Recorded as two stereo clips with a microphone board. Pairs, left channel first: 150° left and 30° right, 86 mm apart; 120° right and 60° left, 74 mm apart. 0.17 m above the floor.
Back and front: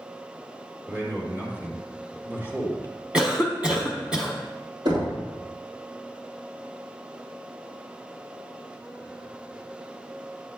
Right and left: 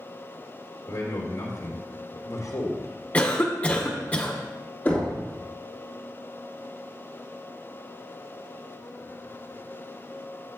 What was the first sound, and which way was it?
A man speaking, 85° right.